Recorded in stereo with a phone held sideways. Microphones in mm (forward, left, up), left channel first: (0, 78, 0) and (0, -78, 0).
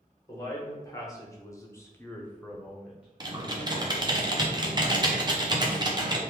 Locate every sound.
0.3 s a man speaking: 20° left (ahead or behind), 1.2 m; by 4.2 s 15° right (ahead or behind), 1.1 m
3.2 s typing on a keyboard: 30° right (ahead or behind), 0.6 m